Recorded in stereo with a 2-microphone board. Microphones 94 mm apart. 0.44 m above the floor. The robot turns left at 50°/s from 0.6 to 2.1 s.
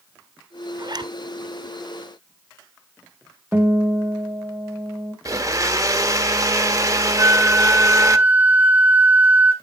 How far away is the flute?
About 1.4 m.